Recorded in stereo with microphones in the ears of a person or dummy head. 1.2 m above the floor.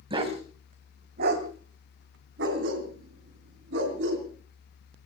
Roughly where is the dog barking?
Right.